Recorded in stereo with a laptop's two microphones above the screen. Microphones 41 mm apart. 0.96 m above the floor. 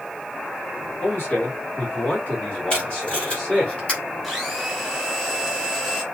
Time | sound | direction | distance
1.0 | a man speaking | 45° left (ahead or behind) | 2 m
2.7 | tape being pulled | 30° left (ahead or behind) | 2.5 m
4.2 | a blender | centre (ahead or behind) | 1.2 m